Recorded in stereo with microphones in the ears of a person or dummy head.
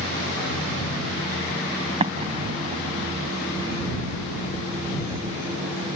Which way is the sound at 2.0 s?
25° right (ahead or behind).